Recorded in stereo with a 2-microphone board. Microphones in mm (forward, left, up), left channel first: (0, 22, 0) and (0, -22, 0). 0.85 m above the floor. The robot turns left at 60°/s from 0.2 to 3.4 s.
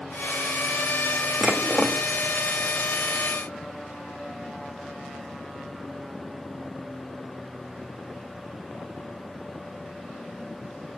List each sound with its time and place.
1.4 s dishes clattering: 155° right, 0.7 m; by 2.0 s 170° left, 0.7 m